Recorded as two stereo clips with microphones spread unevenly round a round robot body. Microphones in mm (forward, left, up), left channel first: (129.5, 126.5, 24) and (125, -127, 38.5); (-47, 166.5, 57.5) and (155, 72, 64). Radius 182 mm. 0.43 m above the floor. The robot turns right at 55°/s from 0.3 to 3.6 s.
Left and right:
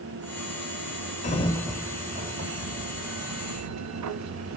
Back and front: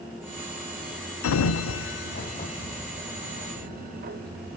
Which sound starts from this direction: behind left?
A sliding door, at 1.2 s.